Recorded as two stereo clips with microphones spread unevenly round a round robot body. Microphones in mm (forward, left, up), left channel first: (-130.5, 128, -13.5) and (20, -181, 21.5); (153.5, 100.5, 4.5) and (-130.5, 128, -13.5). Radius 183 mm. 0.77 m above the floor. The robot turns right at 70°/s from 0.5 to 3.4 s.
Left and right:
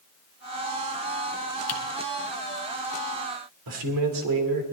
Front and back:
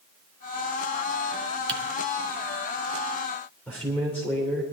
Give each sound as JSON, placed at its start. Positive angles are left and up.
{"t": 1.7, "sound": "typing on a keyboard", "azimuth_deg": 125, "distance_m": 2.0}
{"t": 3.7, "sound": "a man speaking", "azimuth_deg": -90, "distance_m": 3.0}